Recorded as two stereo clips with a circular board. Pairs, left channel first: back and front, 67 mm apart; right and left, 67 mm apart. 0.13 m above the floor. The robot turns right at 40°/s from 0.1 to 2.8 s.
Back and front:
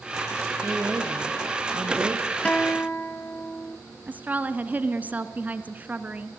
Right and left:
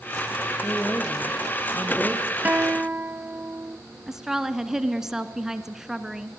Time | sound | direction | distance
0.6 | a woman speaking | 50° right | 2.5 m
2.5 | a guitar | 125° left | 0.8 m
4.1 | a woman speaking | 15° left | 1.2 m